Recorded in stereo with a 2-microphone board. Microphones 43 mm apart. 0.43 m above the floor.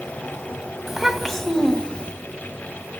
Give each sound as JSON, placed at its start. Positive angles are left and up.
{"t": 0.9, "sound": "a child speaking", "side_deg": -5, "distance_m": 2.0}